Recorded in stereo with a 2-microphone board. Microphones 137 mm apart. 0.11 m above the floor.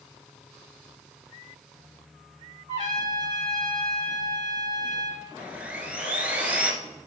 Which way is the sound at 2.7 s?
45° right (ahead or behind).